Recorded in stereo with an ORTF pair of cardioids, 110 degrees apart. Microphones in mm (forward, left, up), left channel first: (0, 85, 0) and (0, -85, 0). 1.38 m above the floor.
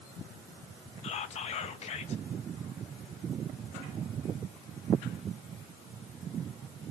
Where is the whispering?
45° left, 0.6 m.